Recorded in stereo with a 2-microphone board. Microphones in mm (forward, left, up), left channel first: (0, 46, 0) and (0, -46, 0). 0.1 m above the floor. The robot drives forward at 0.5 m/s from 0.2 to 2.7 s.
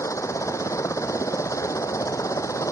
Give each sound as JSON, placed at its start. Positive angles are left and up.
{"t": 0.0, "sound": "a helicopter", "side_deg": 35}